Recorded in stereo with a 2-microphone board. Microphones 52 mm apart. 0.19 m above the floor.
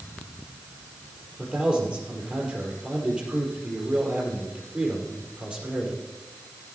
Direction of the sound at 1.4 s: 25° right (ahead or behind).